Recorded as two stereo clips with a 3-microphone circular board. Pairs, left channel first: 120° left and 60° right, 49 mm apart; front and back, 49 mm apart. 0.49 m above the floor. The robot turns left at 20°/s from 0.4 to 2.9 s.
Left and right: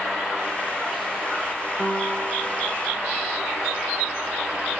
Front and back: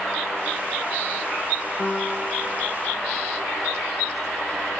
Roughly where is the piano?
Ahead.